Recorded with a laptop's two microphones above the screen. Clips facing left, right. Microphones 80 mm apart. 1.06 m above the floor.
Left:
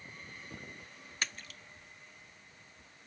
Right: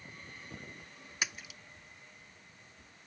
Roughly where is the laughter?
No laughter in this recording.